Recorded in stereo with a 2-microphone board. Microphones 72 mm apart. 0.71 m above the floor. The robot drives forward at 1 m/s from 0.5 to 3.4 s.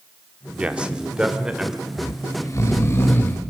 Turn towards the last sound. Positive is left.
turn(degrees=30)  # may be behind; listen again after turning